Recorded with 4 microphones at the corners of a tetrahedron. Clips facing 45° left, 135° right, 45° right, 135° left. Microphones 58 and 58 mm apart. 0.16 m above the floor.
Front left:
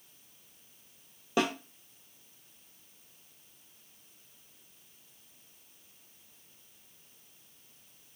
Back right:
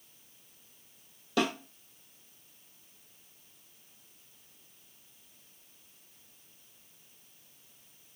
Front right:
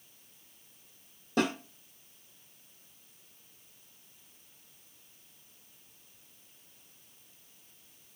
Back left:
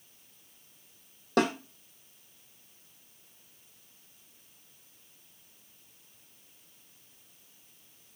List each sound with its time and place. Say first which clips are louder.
1.4 s a snare drum: even, back left 3 dB; 110° left, 1.0 m